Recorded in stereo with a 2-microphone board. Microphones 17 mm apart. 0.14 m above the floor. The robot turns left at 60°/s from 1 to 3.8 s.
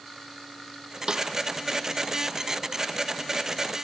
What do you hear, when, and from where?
1.1 s a snare drum: 45° right (ahead or behind), 2.5 m; by 1.2 s 35° right (ahead or behind), 2.5 m